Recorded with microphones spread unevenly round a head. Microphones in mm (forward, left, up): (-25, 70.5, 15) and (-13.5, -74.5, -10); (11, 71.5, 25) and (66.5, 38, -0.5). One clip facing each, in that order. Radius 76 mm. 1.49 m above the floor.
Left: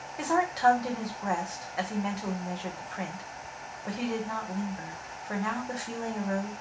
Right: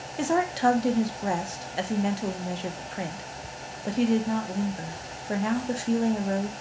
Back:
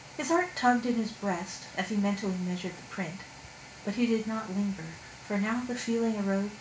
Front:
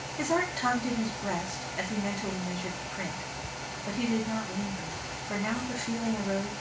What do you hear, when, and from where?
0.2 s a woman speaking: 135° right, 0.6 m